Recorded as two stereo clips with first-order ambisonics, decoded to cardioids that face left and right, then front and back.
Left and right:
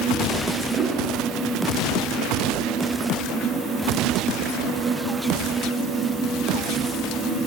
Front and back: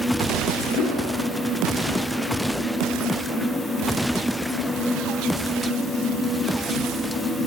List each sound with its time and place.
0.8 s a whoosh: 25° right, 3.5 m